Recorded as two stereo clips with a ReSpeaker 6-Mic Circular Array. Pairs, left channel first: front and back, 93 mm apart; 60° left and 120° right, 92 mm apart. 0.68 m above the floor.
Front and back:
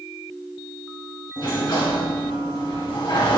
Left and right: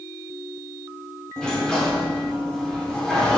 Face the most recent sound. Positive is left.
turn(degrees=-20)